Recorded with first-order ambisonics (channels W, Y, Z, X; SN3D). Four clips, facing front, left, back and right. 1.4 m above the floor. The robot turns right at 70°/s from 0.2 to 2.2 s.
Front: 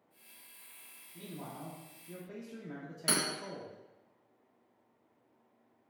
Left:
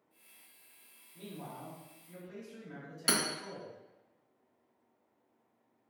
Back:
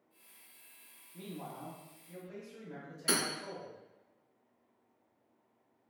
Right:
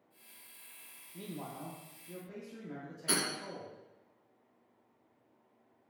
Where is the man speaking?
100° right, 0.5 m; by 4.1 s 25° right, 0.5 m.